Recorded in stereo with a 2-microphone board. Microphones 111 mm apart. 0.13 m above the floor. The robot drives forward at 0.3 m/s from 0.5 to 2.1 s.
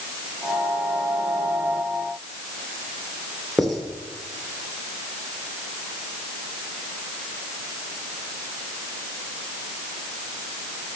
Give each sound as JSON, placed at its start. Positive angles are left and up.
{"t": 3.6, "sound": "writing", "side_deg": 0, "distance_m": 2.0}